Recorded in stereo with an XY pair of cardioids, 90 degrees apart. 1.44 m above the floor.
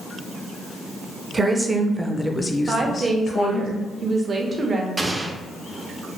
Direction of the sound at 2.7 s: 35° right.